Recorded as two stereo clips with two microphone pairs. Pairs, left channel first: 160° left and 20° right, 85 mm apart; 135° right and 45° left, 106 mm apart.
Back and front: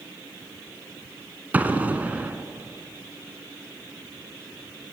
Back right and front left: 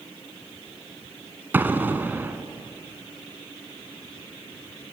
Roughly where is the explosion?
Ahead.